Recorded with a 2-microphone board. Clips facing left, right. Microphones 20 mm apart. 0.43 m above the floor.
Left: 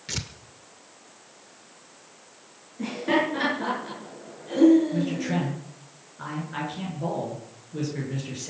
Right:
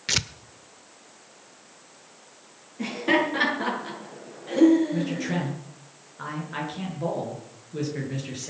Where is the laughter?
20° right (ahead or behind), 7.5 m.